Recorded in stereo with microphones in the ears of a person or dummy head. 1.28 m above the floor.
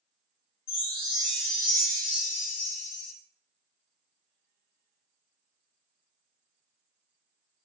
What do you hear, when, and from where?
0.7 s a chime: 65° left (ahead or behind), 1.1 m